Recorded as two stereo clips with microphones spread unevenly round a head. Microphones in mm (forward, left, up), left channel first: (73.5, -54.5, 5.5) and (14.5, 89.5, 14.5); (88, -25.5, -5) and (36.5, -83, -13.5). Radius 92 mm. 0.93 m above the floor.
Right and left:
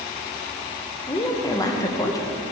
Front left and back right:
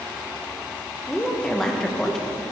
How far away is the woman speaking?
About 0.7 m.